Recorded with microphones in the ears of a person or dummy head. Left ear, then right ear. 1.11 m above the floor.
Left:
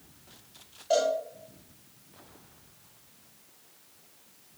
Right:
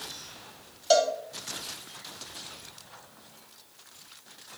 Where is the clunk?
No clunk in this recording.